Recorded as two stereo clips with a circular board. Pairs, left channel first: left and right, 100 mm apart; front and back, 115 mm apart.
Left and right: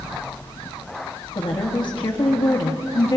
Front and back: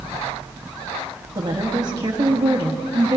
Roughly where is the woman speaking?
Behind left.